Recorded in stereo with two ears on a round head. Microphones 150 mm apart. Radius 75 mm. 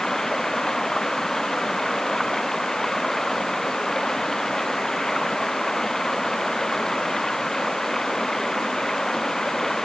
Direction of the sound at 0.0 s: 5° left (ahead or behind).